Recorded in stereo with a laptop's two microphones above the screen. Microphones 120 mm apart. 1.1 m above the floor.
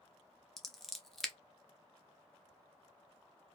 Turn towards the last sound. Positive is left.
turn(degrees=5)  # may be behind; listen again after turning